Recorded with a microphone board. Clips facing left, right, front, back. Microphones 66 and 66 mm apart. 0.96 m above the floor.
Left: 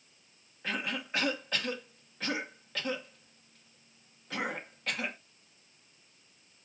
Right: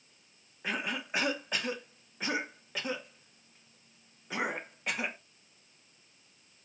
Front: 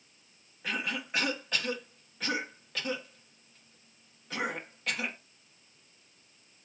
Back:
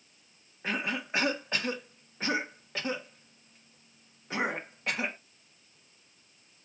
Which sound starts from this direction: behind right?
A cough, at 0.6 s.